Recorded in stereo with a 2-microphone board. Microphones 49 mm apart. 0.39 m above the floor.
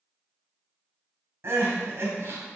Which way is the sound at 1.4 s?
55° right (ahead or behind).